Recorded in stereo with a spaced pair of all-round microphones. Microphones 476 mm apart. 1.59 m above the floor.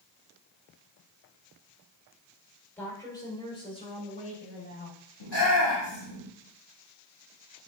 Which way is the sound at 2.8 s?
5° left (ahead or behind).